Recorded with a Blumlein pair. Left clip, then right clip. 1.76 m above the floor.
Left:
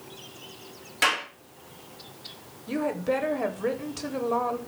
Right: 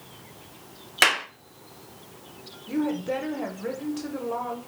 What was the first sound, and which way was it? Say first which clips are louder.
A clap: right 3 dB; 60° right.